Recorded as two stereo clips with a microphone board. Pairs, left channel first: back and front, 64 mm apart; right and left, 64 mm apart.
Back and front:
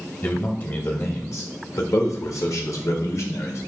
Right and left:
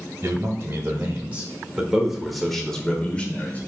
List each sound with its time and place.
0.2 s a man speaking: 130° left, 2 m; by 3.6 s 150° right, 2.0 m